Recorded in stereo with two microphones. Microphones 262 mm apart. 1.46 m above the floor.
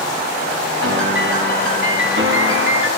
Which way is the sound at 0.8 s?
50° right (ahead or behind).